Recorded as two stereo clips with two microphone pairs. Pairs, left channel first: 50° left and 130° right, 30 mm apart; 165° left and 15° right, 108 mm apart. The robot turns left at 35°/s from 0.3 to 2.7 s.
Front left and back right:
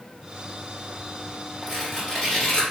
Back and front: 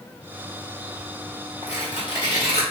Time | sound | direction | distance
1.6 | tearing paper | 145° left | 1.6 m